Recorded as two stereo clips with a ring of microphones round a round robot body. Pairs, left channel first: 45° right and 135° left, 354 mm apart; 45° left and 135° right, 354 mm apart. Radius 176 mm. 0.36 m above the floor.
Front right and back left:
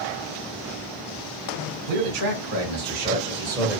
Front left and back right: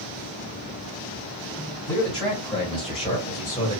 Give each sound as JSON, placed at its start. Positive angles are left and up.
{"t": 1.9, "sound": "a man speaking", "azimuth_deg": 120, "distance_m": 1.9}